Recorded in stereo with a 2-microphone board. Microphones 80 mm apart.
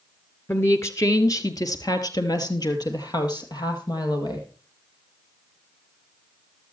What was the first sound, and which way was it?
A woman speaking, 30° left (ahead or behind).